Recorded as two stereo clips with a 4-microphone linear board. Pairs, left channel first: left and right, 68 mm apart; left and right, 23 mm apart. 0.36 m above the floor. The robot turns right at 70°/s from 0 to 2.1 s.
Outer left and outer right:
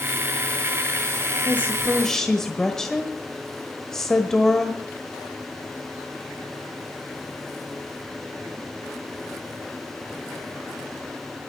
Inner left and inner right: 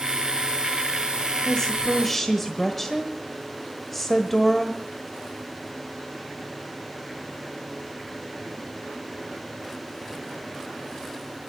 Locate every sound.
1.4 s a woman speaking: 125° left, 1.2 m; by 4.8 s 170° left, 1.2 m